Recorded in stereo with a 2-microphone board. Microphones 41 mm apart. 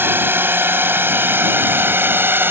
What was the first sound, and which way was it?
A drone, 55° right (ahead or behind).